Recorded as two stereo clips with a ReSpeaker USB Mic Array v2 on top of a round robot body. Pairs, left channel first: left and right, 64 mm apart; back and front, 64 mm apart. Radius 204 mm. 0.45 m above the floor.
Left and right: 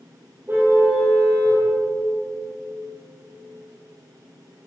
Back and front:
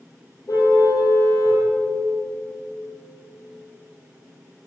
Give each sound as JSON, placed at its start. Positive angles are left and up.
{"t": 0.5, "sound": "a car horn", "azimuth_deg": -150, "distance_m": 9.0}